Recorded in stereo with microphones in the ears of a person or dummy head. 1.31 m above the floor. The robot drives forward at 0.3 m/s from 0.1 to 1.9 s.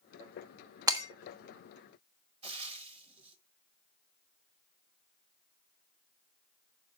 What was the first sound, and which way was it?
Breaking glass, 25° right (ahead or behind).